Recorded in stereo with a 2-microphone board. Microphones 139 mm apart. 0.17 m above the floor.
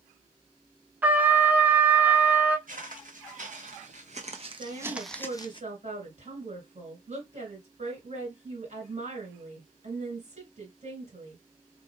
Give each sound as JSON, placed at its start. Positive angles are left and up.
{"t": 1.0, "sound": "a trumpet", "side_deg": -10, "distance_m": 0.5}
{"t": 2.7, "sound": "footsteps", "side_deg": -80, "distance_m": 1.7}
{"t": 4.6, "sound": "a woman speaking", "side_deg": -55, "distance_m": 2.5}